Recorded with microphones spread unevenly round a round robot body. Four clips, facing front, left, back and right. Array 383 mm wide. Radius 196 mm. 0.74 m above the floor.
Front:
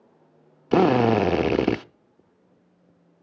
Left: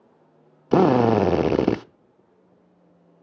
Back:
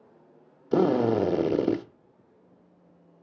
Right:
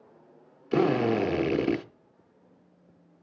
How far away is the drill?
About 0.8 m.